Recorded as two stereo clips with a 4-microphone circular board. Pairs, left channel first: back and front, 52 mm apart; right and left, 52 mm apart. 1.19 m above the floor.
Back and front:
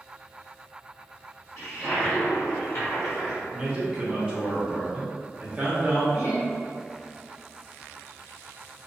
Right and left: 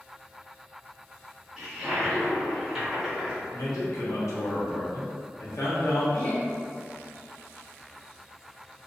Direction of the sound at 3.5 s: 70° right.